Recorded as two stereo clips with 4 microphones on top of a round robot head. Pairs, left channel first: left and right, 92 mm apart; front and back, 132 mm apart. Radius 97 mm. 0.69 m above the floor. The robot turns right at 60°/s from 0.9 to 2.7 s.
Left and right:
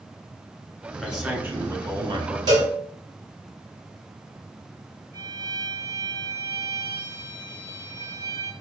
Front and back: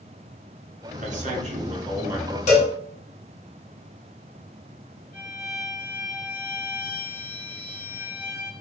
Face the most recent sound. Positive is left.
turn(degrees=15)